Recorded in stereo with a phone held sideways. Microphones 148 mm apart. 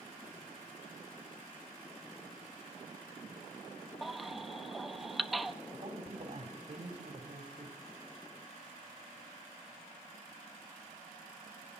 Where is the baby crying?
Centre (ahead or behind), 0.9 m.